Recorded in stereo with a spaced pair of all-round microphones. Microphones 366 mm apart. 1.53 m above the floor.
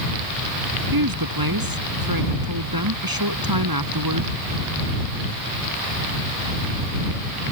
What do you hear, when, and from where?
0.9 s a woman speaking: 70° right (ahead or behind)